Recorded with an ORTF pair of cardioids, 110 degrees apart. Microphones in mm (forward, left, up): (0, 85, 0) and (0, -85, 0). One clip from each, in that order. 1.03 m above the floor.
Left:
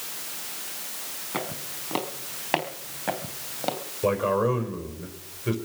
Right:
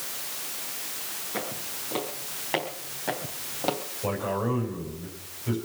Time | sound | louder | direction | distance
1.3 | footsteps | left 2 dB | 50° left | 4.5 m
4.0 | a man speaking | left 6 dB | 55° left | 4.5 m